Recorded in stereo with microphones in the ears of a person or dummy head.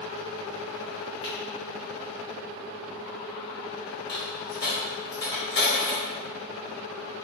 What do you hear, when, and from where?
1.2 s a finger snap: 30° left (ahead or behind), 1.6 m
4.1 s a dropped coin: 20° left (ahead or behind), 1.8 m